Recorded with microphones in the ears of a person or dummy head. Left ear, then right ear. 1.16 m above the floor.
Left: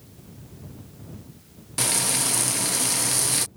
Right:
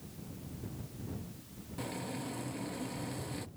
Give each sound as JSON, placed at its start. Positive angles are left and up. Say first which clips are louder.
{"t": 1.8, "sound": "frying", "louder": "left 16 dB", "side_deg": 50}